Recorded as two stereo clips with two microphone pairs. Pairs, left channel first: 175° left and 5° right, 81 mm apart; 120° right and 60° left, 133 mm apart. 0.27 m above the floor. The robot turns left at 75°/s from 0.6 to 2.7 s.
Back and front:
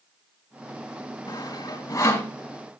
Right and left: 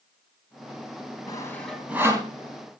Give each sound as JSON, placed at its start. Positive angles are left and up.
{"t": 1.3, "sound": "sawing", "azimuth_deg": -175, "distance_m": 2.5}